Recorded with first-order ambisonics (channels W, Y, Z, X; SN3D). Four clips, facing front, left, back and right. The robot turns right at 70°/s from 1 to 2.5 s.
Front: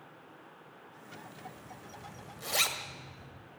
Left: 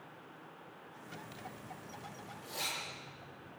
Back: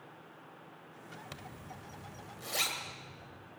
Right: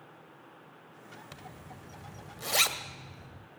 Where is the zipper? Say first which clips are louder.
Even, even; 155° right, 1.8 m; by 3.5 s 70° right, 1.8 m.